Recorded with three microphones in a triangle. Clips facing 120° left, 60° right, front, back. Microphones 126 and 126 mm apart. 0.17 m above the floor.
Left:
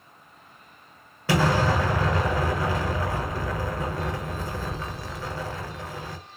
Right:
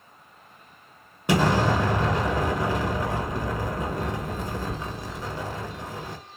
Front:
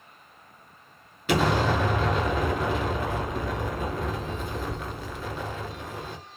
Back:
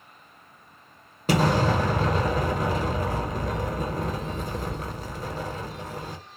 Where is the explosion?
130° right, 1.1 m.